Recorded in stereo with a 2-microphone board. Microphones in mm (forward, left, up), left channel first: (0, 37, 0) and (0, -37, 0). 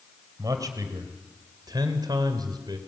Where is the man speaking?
45° right (ahead or behind), 3 m; by 2.8 s 55° right (ahead or behind), 2 m.